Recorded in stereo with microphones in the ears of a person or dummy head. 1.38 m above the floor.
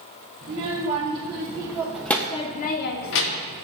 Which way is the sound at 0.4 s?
35° right (ahead or behind).